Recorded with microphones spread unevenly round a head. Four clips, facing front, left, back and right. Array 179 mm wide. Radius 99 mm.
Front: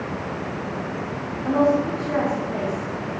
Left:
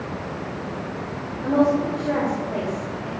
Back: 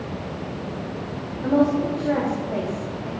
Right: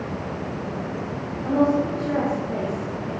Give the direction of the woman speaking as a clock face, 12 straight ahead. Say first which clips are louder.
Left 1 dB, even; 7 o'clock.